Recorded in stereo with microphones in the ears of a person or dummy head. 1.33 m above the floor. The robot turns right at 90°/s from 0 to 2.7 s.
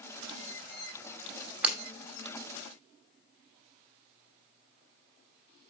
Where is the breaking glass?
5° right (ahead or behind), 2.5 m; by 1.8 s 5° left (ahead or behind), 2.5 m.